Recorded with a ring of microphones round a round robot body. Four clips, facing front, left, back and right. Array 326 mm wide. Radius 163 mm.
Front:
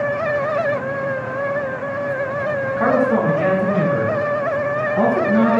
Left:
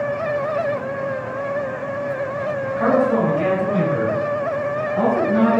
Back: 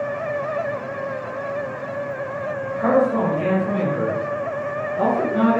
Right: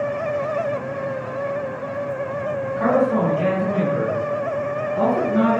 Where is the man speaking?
10° left, 7 m; by 5.6 s 20° left, 9 m.